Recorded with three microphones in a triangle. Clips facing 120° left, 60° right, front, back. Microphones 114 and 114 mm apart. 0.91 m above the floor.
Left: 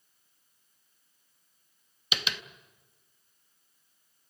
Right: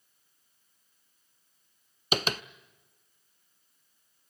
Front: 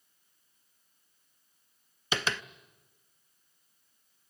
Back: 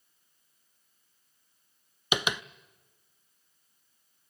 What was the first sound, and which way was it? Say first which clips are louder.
Tapping: right 7 dB, back 2 dB; 105° right.